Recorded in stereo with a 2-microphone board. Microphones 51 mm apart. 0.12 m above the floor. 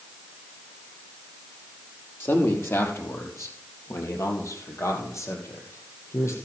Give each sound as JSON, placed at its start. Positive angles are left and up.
{"t": 2.2, "sound": "a man speaking", "side_deg": 50, "distance_m": 3.5}